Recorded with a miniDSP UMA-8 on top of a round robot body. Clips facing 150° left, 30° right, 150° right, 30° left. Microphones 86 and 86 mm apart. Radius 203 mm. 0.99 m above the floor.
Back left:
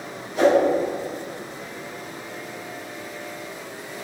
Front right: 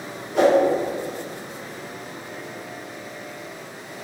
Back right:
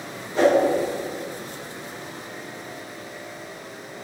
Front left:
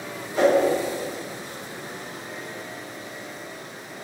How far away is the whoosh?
About 3 m.